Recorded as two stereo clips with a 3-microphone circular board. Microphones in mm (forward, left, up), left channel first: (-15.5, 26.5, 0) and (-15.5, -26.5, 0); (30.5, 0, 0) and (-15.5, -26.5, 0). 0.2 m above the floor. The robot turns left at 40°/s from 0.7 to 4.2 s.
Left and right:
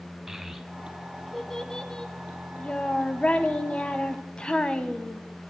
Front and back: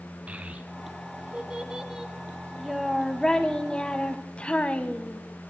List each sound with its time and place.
0.3 s a child speaking: 170° right, 0.9 m; by 5.2 s 50° left, 0.9 m